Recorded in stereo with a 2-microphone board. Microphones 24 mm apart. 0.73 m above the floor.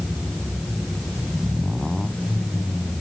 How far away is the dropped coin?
I don't hear a dropped coin.